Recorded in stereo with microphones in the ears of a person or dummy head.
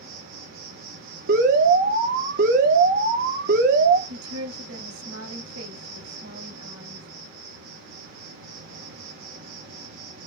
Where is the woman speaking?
80° right, 3 m.